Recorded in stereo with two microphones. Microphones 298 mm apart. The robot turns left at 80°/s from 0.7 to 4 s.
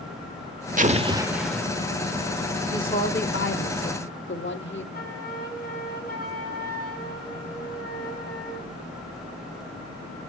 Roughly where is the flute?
Left.